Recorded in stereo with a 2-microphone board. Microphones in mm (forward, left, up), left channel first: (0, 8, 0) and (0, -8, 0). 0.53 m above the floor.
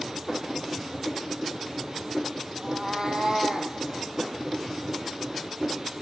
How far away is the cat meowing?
About 1.5 m.